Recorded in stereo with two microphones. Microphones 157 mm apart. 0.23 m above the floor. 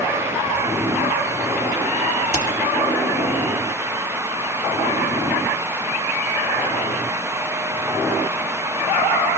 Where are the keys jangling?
45° left (ahead or behind), 4 m.